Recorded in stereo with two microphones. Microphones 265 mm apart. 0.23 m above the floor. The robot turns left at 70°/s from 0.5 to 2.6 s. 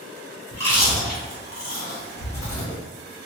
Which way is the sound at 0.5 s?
15° right (ahead or behind).